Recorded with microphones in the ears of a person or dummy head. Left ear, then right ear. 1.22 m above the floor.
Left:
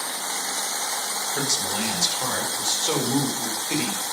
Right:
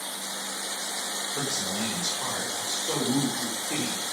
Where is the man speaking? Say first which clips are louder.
Left 6 dB; 50° left (ahead or behind), 4.5 m; by 4.0 s 85° left, 4.5 m.